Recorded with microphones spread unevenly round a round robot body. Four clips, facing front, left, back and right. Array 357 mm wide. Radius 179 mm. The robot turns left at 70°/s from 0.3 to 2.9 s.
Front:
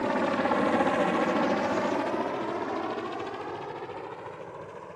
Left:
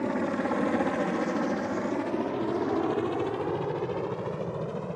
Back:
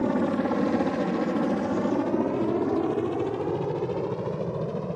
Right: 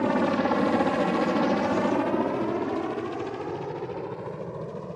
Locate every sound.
0.0 s a helicopter: 150° right; by 5.0 s 170° left